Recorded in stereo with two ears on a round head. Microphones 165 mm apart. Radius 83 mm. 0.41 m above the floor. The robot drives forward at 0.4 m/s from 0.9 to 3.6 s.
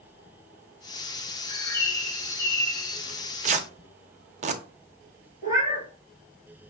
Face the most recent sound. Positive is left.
turn(degrees=-20)  # may be behind; listen again after turning